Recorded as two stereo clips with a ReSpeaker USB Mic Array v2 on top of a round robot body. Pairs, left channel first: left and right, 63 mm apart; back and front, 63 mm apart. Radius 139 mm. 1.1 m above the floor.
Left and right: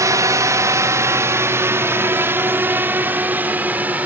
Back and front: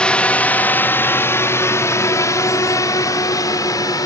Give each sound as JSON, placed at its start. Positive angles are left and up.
{"t": 0.0, "sound": "a drone", "azimuth_deg": -110}